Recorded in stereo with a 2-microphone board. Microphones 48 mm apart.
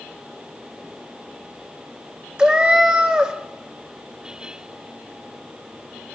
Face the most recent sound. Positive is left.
turn(degrees=-15)  # may be behind; listen again after turning